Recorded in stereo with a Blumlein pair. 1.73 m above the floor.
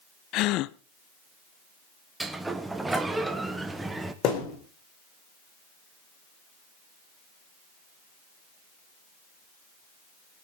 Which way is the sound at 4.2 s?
35° left.